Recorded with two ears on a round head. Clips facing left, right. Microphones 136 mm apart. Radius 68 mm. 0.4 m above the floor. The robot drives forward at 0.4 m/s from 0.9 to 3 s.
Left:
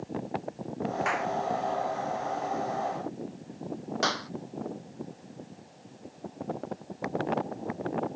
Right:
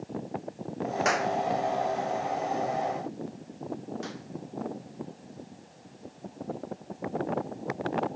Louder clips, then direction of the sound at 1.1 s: Right 6 dB; 50° right (ahead or behind).